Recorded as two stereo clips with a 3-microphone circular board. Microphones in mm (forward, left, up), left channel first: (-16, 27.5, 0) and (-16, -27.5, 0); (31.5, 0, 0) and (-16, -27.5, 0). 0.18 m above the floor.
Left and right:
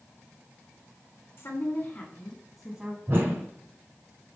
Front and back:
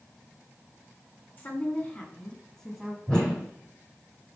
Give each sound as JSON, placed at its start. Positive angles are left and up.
{"t": 1.4, "sound": "a woman speaking", "azimuth_deg": 70, "distance_m": 2.5}
{"t": 3.1, "sound": "a whoosh", "azimuth_deg": -50, "distance_m": 1.7}